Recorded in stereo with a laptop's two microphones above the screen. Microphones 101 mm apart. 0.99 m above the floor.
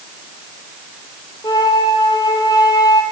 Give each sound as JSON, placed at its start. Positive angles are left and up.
{"t": 1.4, "sound": "a flute", "side_deg": 40, "distance_m": 3.5}